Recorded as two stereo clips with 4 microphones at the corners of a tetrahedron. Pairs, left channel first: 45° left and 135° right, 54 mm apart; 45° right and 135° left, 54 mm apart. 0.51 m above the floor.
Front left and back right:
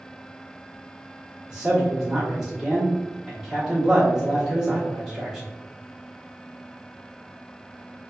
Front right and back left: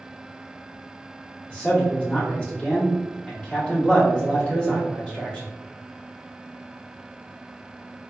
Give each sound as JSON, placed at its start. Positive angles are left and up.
{"t": 1.5, "sound": "a man speaking", "azimuth_deg": -70, "distance_m": 0.9}